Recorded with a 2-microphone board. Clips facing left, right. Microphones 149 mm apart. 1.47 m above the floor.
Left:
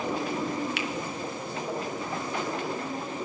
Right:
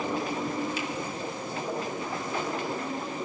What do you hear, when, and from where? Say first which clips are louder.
0.8 s a finger snap: even; 70° left (ahead or behind), 1.1 m